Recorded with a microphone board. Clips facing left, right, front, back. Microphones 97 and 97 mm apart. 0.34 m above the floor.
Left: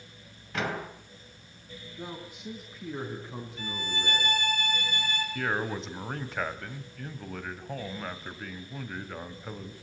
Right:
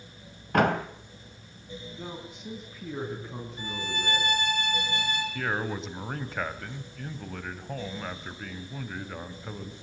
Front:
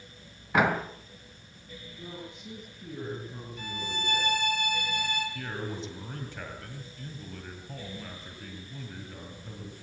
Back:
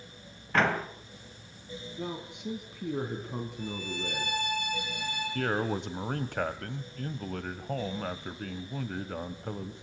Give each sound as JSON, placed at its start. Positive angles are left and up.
{"t": 0.5, "sound": "a door slam", "azimuth_deg": -75, "distance_m": 1.6}
{"t": 2.0, "sound": "a man speaking", "azimuth_deg": 175, "distance_m": 3.5}
{"t": 3.6, "sound": "a violin", "azimuth_deg": -20, "distance_m": 6.0}
{"t": 5.3, "sound": "a man speaking", "azimuth_deg": 180, "distance_m": 2.0}